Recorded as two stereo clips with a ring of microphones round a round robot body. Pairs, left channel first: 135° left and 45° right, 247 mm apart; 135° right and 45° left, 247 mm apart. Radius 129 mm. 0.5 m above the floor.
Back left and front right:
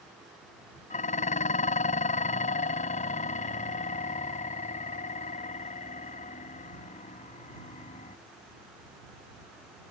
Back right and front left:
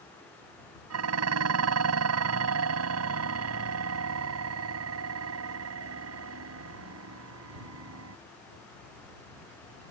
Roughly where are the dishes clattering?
Left.